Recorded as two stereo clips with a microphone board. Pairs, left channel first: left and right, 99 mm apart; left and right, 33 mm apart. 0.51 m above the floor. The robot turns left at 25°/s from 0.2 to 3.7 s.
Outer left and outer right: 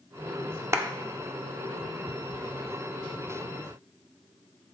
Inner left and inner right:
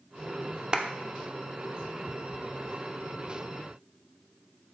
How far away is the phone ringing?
No phone ringing in this recording.